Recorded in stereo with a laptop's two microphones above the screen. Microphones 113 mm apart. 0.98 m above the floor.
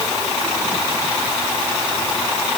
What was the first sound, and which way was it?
Only background noise.